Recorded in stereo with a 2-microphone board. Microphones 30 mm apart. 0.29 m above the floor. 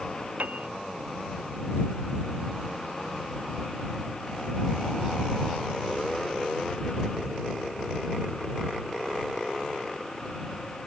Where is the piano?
60° right (ahead or behind).